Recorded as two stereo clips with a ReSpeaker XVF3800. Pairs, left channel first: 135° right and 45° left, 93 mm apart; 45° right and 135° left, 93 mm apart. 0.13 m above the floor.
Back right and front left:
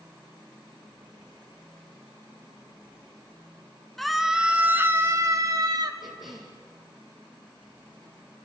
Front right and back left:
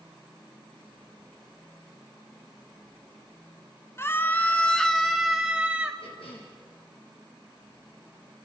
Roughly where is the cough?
Ahead right.